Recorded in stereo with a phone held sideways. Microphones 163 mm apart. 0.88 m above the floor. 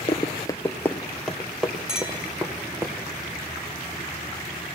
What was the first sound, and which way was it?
Running footsteps, 30° left (ahead or behind).